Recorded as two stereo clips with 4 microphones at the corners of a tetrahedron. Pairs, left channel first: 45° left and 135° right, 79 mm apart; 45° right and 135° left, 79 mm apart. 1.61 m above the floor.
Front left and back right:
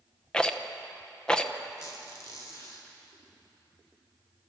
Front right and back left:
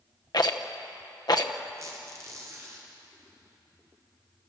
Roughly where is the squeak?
Left.